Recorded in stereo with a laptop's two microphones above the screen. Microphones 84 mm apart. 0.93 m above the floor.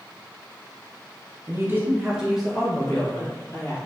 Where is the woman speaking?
35° right (ahead or behind), 0.7 m; by 3.8 s 20° left (ahead or behind), 1.2 m.